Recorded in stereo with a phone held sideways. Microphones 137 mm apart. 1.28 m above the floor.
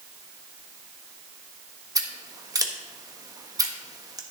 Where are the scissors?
25° right (ahead or behind), 1.2 m.